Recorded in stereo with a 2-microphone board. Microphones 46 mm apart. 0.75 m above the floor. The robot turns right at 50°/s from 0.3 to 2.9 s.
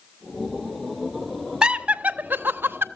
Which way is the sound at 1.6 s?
20° right (ahead or behind).